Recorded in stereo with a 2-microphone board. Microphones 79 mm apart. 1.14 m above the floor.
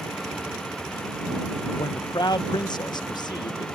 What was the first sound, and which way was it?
A man speaking, 60° left (ahead or behind).